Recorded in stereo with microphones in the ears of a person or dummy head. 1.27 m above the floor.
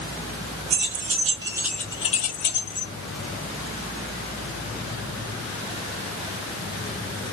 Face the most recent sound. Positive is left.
turn(degrees=65)  # may be behind; listen again after turning